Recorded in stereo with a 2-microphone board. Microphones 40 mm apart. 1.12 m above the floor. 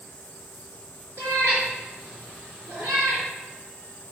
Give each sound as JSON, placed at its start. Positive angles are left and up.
{"t": 1.2, "sound": "a cat meowing", "side_deg": -65, "distance_m": 3.5}